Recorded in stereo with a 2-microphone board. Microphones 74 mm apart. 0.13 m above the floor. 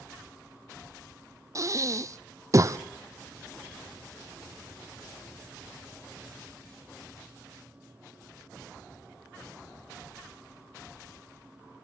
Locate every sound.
1.6 s breathing: 45° right (ahead or behind), 0.9 m